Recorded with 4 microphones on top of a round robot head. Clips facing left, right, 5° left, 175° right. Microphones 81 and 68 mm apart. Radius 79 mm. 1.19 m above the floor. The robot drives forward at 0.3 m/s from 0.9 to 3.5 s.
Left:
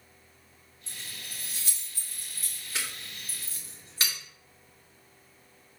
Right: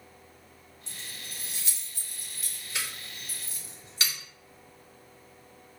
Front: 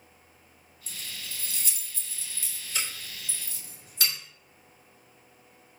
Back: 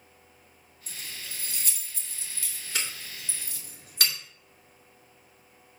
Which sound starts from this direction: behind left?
Keys jangling, at 0.9 s.